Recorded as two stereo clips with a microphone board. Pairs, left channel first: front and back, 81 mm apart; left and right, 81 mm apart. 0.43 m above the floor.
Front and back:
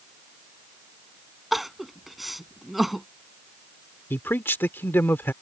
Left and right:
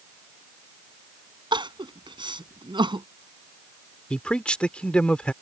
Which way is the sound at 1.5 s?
90° right.